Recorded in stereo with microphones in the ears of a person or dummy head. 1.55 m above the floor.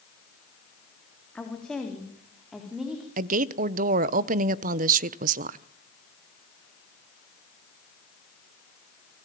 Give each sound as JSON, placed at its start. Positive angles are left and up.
{"t": 1.4, "sound": "a woman speaking", "side_deg": 5, "distance_m": 3.5}
{"t": 3.2, "sound": "a woman speaking", "side_deg": -45, "distance_m": 1.0}